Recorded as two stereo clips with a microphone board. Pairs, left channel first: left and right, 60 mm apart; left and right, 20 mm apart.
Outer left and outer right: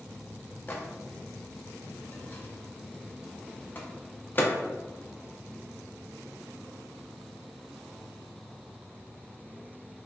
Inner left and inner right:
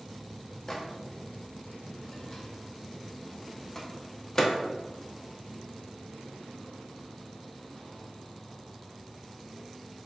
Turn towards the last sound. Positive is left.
turn(degrees=30)  # may be behind; listen again after turning